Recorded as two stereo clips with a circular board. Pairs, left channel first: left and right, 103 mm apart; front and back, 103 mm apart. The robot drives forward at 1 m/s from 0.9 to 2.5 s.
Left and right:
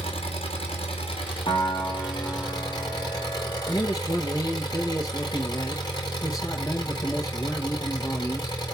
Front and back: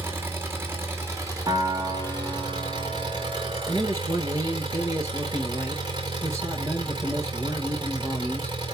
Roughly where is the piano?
Behind left.